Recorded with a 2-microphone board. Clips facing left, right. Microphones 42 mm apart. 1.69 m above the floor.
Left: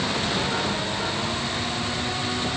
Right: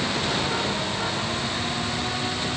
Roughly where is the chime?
I don't hear a chime.